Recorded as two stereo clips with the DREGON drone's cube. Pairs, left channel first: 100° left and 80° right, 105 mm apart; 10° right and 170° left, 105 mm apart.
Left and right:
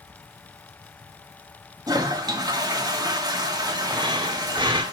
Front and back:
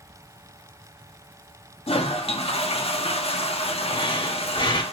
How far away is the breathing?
About 1.6 m.